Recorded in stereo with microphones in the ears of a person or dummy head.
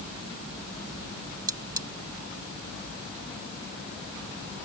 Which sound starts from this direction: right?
Cutlery clinking, at 1.5 s.